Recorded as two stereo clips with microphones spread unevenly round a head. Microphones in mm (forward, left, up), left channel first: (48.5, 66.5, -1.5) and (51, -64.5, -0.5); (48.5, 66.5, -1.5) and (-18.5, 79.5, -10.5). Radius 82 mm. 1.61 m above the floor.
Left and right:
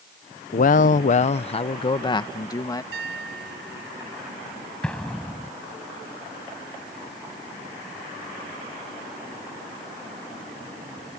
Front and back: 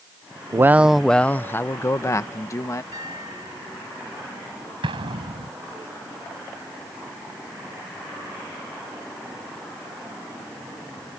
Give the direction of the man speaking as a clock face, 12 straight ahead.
8 o'clock.